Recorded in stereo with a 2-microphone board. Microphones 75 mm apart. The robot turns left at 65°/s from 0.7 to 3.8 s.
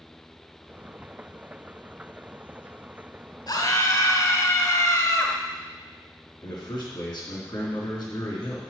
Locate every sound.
3.5 s a scream: 60° left (ahead or behind), 2.5 m; by 5.3 s 45° left (ahead or behind), 2.5 m
6.4 s a man speaking: 65° left (ahead or behind), 3.5 m